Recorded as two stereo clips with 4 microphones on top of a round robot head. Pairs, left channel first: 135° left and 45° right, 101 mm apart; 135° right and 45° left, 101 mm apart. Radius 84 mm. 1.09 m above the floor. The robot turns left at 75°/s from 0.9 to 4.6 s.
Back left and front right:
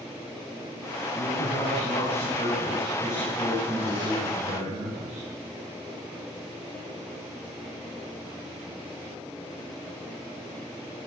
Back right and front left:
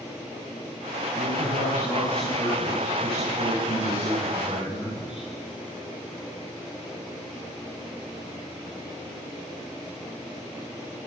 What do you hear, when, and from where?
1.1 s a man speaking: 135° right, 7.5 m; by 5.2 s 35° right, 7.5 m